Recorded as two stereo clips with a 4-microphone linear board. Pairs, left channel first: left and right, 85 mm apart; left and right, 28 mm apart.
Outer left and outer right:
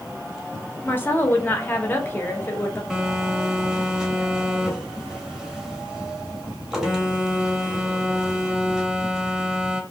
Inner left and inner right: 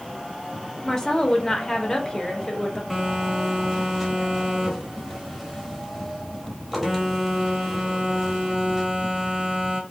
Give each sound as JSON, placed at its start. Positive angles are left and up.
{"t": 0.8, "sound": "a woman speaking", "side_deg": 20, "distance_m": 0.8}
{"t": 2.9, "sound": "a phone buzzing", "side_deg": -5, "distance_m": 0.8}